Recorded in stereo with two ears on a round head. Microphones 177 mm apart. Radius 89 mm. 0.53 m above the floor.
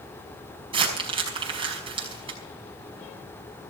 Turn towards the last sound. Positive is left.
turn(degrees=-25)  # may be behind; listen again after turning